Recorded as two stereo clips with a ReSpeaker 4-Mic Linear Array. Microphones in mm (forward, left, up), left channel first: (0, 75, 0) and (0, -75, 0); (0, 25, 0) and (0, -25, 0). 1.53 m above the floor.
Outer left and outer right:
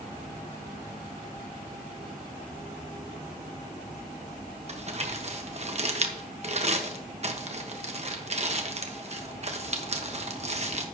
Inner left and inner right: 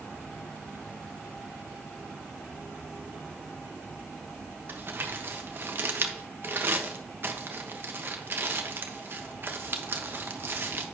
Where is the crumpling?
45° right (ahead or behind), 1.1 m.